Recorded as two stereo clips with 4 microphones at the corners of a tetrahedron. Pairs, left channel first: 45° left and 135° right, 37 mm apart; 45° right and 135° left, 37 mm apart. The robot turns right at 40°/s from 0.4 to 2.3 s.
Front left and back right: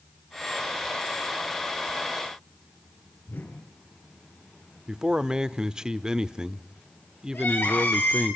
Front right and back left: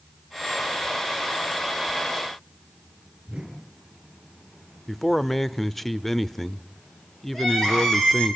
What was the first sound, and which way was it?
A whoosh, 75° left.